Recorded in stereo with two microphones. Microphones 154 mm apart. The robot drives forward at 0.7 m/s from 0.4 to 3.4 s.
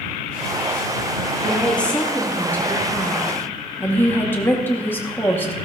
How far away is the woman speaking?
About 3.5 m.